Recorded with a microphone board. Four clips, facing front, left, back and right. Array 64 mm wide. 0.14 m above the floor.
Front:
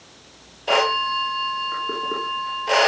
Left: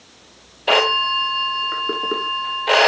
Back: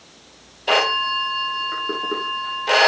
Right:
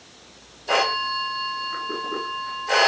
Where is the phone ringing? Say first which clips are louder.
Left 5 dB, even; 100° left, 3 m.